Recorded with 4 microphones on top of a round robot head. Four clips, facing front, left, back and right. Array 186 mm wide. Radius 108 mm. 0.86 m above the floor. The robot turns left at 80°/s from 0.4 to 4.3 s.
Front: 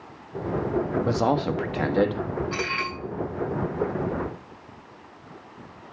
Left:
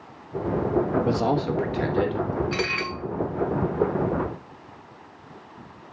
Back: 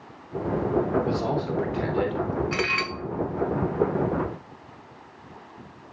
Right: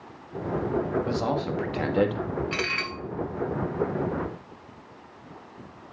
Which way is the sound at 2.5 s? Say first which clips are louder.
Left 3 dB, back 2 dB; 155° right.